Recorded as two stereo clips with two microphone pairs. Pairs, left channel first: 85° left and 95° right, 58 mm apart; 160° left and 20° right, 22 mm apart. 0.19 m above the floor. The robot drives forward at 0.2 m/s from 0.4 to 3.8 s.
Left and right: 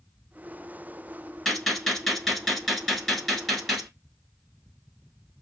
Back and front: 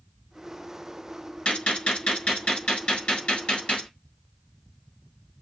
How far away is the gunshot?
About 1.1 m.